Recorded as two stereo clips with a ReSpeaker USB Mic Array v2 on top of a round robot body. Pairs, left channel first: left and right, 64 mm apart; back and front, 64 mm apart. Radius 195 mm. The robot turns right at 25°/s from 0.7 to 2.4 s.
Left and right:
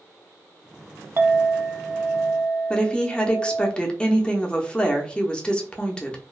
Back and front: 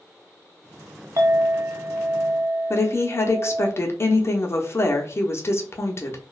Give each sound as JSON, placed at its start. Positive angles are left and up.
{"t": 1.2, "sound": "a clink", "azimuth_deg": -40, "distance_m": 0.5}
{"t": 2.7, "sound": "a woman speaking", "azimuth_deg": 160, "distance_m": 0.9}